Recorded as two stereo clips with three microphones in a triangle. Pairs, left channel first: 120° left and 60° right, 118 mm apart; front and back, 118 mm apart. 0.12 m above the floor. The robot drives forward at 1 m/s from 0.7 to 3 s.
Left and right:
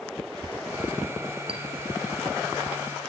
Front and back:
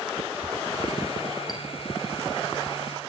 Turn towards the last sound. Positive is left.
turn(degrees=-120)